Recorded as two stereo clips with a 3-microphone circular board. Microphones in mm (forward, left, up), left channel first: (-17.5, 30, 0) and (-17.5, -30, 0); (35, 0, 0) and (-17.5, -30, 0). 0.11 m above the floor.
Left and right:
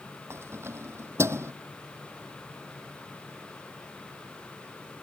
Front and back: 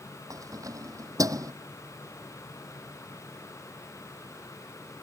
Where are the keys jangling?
135° right.